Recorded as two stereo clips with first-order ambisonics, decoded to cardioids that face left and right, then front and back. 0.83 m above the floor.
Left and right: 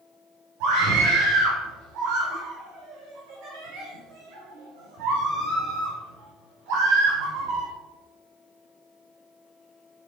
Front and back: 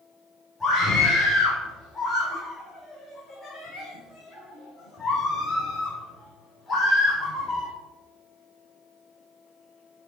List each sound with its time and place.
0.6 s a scream: 80° right, 2.5 m